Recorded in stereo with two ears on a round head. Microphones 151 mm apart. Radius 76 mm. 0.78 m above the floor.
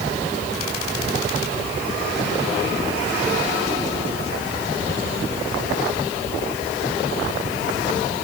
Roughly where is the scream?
I don't hear a scream.